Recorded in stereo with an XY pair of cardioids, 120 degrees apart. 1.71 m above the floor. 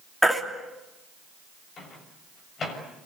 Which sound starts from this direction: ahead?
A baby crying, at 0.2 s.